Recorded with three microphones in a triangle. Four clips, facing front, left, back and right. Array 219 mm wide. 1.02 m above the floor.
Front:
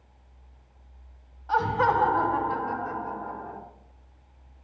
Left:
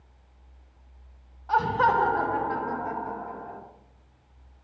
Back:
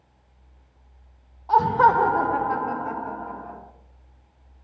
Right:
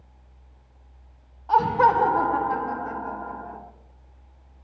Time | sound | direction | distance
1.5 | laughter | 145° right | 0.6 m